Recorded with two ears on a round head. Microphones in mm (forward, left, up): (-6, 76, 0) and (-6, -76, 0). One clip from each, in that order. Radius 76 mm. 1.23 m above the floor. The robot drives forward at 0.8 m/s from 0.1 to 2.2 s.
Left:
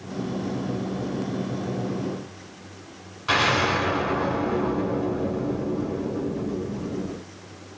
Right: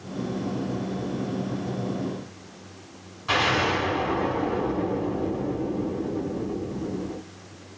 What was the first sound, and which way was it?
An explosion, 20° left (ahead or behind).